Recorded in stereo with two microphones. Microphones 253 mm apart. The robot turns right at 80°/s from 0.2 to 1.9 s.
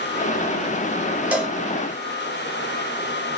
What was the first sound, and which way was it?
A cowbell, 5° right (ahead or behind).